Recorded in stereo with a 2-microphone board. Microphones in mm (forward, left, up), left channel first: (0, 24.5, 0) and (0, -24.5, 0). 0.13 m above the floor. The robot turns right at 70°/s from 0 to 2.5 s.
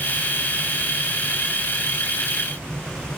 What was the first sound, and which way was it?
Only background noise.